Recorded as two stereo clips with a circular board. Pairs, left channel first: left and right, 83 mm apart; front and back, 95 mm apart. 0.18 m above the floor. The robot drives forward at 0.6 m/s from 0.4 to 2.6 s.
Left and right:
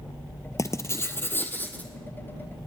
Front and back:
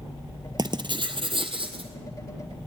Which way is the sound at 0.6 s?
135° left.